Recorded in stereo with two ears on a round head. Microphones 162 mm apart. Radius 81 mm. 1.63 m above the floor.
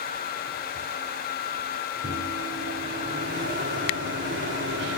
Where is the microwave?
75° right (ahead or behind), 6 m.